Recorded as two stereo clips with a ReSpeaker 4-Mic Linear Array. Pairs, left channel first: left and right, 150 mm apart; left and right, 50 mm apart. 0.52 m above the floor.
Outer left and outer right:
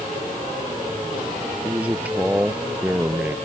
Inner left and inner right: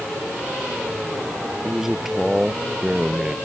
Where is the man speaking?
10° right (ahead or behind).